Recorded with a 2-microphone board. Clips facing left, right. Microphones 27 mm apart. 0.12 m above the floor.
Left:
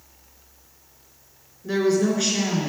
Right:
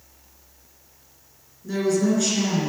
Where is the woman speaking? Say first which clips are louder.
Left 1 dB; 30° left (ahead or behind), 1.4 m; by 2.7 s 15° left (ahead or behind), 1.6 m.